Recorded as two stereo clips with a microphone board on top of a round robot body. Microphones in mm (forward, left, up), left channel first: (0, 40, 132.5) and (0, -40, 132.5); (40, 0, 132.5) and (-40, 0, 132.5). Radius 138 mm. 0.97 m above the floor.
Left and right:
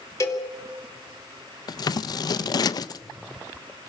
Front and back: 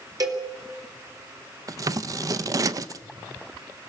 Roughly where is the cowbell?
Behind left.